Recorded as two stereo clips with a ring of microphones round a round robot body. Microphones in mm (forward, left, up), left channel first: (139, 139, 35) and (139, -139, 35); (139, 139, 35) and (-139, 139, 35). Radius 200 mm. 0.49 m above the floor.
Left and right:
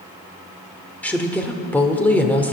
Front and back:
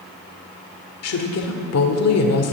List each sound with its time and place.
1.0 s a woman speaking: 5° left, 1.6 m